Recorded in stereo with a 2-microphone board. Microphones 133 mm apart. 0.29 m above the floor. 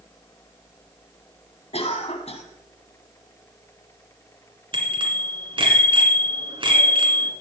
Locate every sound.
1.7 s a cough: 50° left (ahead or behind), 1.8 m
4.7 s a bicycle bell: 40° right (ahead or behind), 2.5 m